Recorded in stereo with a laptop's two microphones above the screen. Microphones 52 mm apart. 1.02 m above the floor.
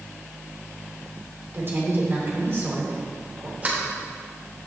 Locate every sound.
1.5 s a woman speaking: 50° right (ahead or behind), 3 m
3.6 s a sliding door: 35° right (ahead or behind), 3.5 m